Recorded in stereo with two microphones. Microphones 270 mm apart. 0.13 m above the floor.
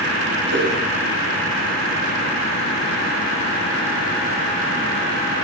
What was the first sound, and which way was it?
A whoosh, 65° right (ahead or behind).